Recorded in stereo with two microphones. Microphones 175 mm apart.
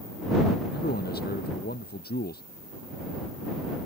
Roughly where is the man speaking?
Left.